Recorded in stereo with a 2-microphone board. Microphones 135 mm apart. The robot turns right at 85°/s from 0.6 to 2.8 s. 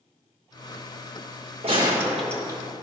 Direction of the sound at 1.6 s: 50° right.